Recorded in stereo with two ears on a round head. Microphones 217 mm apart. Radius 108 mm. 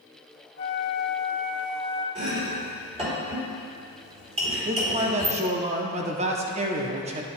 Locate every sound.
0.6 s a flute: 45° left (ahead or behind), 0.8 m
2.1 s chopping: 25° right (ahead or behind), 2.5 m
4.7 s a man speaking: 25° right (ahead or behind), 0.7 m